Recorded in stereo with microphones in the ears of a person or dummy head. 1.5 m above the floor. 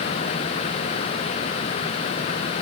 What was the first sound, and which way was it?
Only background noise.